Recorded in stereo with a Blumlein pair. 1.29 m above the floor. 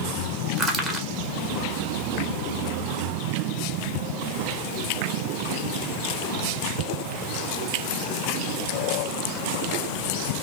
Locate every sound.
0.6 s crushing: 15° right, 1.4 m